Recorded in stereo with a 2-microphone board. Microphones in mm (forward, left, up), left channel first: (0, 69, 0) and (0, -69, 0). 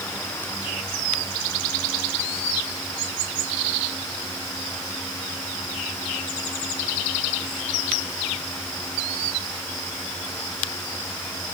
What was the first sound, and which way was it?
Only background noise.